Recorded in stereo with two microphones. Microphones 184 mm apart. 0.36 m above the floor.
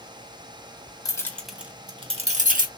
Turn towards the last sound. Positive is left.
turn(degrees=-50)  # may be behind; listen again after turning